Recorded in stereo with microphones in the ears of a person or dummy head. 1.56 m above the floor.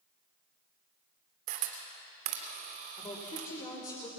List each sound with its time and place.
1.5 s a camera shutter: 45° right (ahead or behind), 2.5 m
3.0 s a woman speaking: 25° left (ahead or behind), 5 m